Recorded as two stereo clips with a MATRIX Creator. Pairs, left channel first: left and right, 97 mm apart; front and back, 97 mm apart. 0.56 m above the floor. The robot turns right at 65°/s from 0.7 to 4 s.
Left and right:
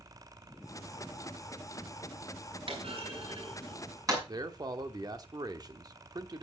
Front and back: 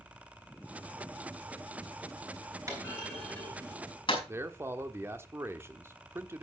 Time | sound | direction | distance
2.7 | a clunk | 125° right | 5 m
4.3 | a man speaking | 125° right | 1.1 m